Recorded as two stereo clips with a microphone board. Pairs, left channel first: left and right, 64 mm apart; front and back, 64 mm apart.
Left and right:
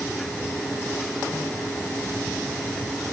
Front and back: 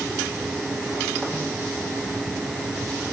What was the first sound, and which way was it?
Only background noise.